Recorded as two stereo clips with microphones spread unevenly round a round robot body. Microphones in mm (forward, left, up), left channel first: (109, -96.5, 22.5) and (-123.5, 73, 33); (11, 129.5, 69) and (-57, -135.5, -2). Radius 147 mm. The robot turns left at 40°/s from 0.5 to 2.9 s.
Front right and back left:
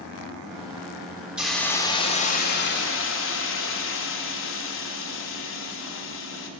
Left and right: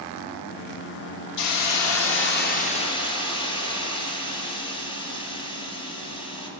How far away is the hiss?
About 1.5 m.